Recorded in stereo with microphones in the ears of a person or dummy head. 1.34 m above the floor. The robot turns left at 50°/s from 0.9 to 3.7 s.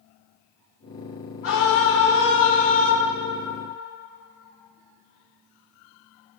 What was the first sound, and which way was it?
A scream, 110° left.